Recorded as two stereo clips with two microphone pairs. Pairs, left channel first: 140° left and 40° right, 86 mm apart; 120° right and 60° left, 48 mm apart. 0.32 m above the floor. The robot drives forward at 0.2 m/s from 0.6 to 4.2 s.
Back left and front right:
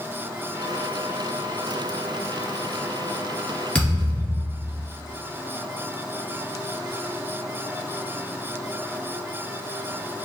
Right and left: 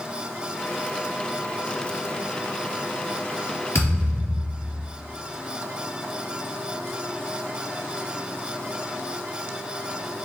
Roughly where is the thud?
Behind right.